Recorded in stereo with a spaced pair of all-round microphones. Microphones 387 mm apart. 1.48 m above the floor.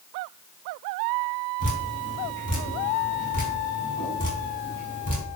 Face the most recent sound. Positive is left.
turn(degrees=55)  # may be behind; listen again after turning